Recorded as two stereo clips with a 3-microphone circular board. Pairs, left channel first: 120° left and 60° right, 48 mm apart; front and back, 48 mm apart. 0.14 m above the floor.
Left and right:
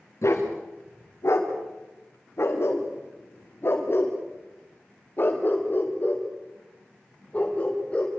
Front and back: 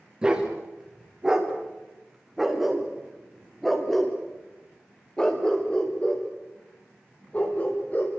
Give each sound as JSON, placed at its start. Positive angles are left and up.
{"t": 0.2, "sound": "a dog barking", "azimuth_deg": 110, "distance_m": 6.5}